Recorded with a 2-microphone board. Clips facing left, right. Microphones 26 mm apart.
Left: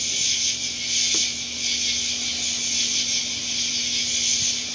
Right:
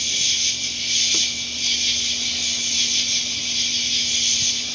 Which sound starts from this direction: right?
An insect, at 0.0 s.